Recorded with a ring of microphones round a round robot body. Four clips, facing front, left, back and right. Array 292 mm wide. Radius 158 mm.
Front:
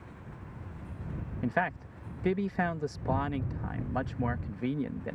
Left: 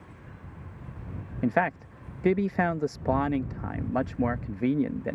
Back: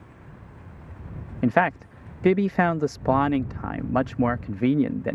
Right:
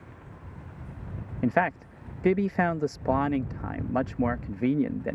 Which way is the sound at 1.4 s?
Straight behind.